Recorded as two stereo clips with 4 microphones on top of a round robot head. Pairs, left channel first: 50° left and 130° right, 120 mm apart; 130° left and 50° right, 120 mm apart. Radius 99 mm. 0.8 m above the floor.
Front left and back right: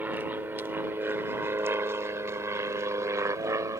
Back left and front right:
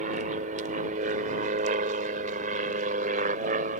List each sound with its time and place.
0.0 s an aircraft: 55° right; by 3.8 s 65° right